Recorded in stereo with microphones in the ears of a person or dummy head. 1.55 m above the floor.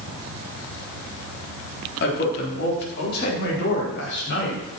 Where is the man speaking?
60° left (ahead or behind), 4 m; by 4.6 s 65° left (ahead or behind), 5.5 m.